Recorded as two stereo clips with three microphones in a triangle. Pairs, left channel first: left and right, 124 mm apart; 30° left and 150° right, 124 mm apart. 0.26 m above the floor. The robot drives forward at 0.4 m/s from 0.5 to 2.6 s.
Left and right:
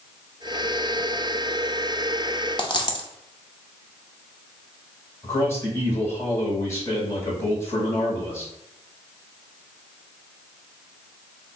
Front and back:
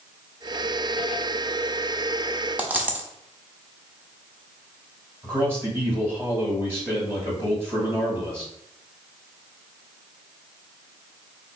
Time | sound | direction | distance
2.6 | a dropped coin | 135° left | 0.6 m
5.2 | a man speaking | 150° left | 1.7 m